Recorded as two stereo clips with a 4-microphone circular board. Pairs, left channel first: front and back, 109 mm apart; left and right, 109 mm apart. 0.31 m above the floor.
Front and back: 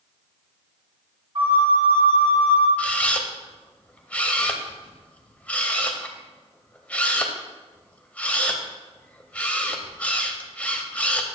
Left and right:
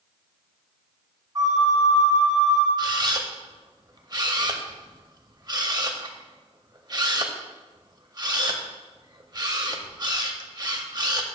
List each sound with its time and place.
1.4 s a flute: 140° right, 2.5 m
2.8 s a camera shutter: 70° right, 0.6 m